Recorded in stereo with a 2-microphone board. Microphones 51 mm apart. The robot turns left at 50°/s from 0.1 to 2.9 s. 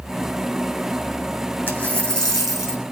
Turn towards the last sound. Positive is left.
turn(degrees=-20)